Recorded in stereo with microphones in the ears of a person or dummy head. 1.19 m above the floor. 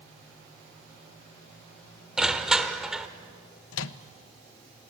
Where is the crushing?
5° right (ahead or behind), 1.3 m.